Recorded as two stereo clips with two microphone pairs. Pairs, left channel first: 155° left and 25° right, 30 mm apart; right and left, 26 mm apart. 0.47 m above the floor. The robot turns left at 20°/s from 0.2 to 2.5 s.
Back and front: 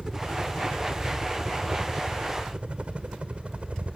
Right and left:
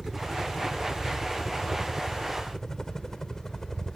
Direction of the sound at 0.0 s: 15° left.